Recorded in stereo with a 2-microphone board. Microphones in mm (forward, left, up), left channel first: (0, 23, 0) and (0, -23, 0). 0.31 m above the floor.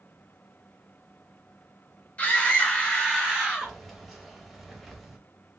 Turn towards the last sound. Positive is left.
turn(degrees=0)  # may be behind; listen again after turning